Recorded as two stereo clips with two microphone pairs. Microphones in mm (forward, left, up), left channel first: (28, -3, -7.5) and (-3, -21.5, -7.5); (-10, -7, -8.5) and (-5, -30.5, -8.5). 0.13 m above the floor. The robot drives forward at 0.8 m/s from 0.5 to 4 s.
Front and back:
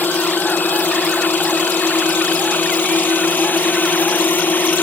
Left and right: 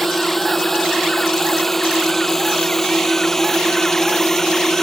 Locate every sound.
0.0 s a drone: 25° left; by 4.8 s 35° left